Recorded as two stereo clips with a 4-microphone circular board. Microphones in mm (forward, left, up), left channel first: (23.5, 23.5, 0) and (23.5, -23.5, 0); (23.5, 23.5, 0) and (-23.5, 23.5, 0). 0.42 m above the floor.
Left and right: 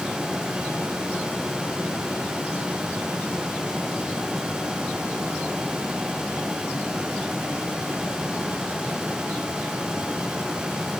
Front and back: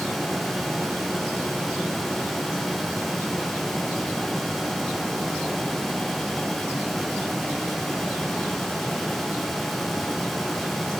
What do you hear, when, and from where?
Only background noise.